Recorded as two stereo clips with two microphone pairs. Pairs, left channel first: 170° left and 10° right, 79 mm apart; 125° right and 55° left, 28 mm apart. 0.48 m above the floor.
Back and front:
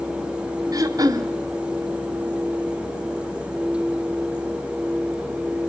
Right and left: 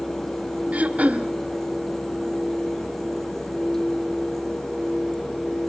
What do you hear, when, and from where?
0.7 s throat clearing: 25° left, 1.7 m